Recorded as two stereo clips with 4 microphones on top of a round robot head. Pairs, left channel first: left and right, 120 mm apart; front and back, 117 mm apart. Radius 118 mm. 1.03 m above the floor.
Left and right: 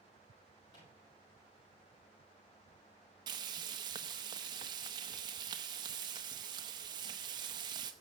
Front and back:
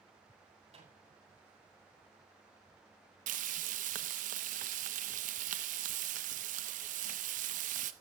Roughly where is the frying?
Behind right.